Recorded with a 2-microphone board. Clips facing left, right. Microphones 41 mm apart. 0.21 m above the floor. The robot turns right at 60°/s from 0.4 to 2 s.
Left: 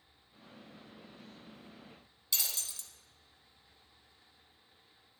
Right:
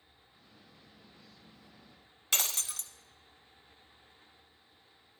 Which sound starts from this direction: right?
Breaking glass, at 2.3 s.